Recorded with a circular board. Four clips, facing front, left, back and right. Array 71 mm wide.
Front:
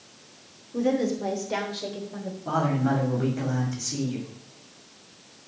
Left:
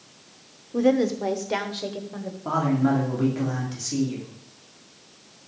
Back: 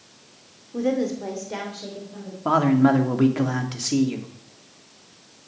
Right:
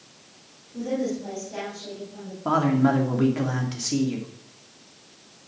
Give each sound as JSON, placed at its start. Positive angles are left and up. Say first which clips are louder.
{"t": 0.7, "sound": "a woman speaking", "louder": "left 7 dB, back 1 dB", "azimuth_deg": 100, "distance_m": 2.5}
{"t": 2.5, "sound": "a man speaking", "louder": "right 2 dB, back 7 dB", "azimuth_deg": -165, "distance_m": 2.5}